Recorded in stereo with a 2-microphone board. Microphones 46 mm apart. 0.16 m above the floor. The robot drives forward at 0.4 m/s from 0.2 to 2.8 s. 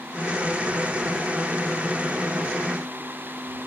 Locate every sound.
Only background noise.